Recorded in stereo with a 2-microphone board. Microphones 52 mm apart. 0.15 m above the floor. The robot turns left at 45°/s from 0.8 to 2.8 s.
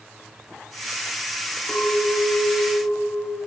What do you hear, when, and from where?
1.7 s a clink: 25° left, 1.3 m; by 3.4 s 25° right, 1.3 m